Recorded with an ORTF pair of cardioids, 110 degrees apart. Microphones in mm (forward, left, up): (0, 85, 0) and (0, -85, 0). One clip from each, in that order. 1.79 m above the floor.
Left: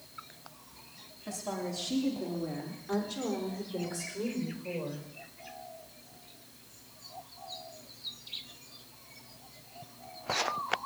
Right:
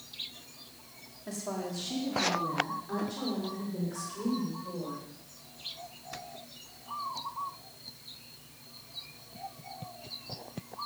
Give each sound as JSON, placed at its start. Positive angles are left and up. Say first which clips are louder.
{"t": 1.3, "sound": "a woman speaking", "louder": "even", "azimuth_deg": 10, "distance_m": 4.5}